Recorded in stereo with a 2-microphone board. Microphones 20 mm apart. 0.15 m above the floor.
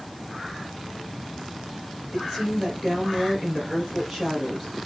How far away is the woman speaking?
About 2.5 m.